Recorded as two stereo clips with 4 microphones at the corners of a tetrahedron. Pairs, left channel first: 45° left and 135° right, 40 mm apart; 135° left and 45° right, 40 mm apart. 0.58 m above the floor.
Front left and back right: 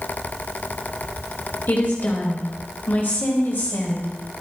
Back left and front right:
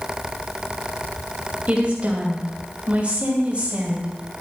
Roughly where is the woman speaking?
Ahead.